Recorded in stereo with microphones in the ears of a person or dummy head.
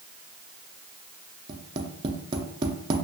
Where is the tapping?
30° right (ahead or behind), 0.6 m.